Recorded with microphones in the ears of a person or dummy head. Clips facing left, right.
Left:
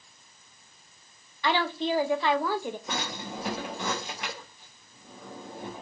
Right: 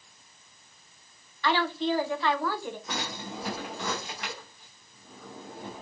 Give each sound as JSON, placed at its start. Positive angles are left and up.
{"t": 1.4, "sound": "a woman speaking", "side_deg": 20, "distance_m": 0.6}
{"t": 2.9, "sound": "a drawer", "side_deg": 15, "distance_m": 0.8}